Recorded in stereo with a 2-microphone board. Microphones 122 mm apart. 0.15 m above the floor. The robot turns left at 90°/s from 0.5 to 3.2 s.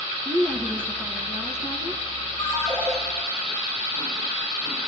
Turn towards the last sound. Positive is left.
turn(degrees=-20)